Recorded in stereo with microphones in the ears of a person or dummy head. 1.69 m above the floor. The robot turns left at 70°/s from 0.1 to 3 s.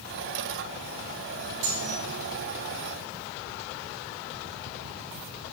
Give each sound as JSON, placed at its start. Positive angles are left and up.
{"t": 1.6, "sound": "cutlery clinking", "side_deg": -70, "distance_m": 3.0}